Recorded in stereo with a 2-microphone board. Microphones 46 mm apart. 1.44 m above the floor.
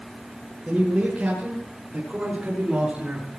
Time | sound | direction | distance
0.7 | a man speaking | 25° right (ahead or behind) | 7 m